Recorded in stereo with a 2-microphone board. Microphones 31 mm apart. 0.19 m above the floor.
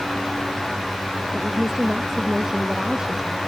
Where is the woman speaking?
10° right (ahead or behind); by 3.4 s 20° right (ahead or behind).